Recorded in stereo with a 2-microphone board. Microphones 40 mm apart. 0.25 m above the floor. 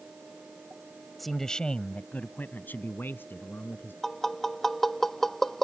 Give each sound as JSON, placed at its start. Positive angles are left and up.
{"t": 1.2, "sound": "a man speaking", "side_deg": 0}
{"t": 4.0, "sound": "tapping", "side_deg": 10}